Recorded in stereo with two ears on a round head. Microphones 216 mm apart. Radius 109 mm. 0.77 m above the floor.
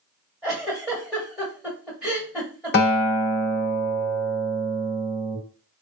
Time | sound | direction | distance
0.4 | a giggle | 5° right (ahead or behind) | 1.6 m
2.7 | a guitar | 45° left (ahead or behind) | 1.9 m